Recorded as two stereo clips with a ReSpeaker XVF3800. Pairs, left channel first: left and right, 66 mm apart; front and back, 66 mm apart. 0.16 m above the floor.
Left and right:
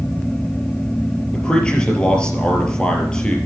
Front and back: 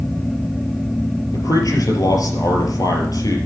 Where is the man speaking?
15° left, 4 m.